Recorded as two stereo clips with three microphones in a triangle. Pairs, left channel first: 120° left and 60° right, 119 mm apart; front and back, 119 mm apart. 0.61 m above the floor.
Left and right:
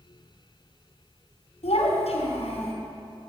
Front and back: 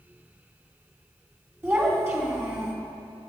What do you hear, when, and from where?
1.6 s a child speaking: 115° left, 2 m